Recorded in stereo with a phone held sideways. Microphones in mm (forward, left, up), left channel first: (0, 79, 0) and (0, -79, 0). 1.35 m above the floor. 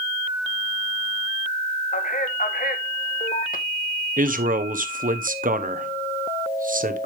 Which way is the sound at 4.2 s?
60° right (ahead or behind).